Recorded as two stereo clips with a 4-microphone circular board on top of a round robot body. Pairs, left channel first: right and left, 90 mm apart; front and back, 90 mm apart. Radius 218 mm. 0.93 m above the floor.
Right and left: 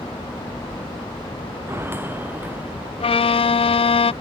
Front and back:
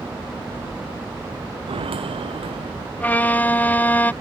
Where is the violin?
75° right.